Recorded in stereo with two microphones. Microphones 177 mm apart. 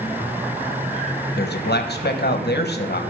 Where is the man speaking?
70° left (ahead or behind), 1.2 m.